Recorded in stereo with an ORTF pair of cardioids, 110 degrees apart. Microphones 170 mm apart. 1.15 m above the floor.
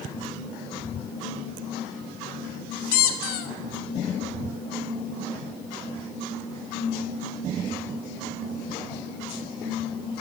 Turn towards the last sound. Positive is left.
turn(degrees=60)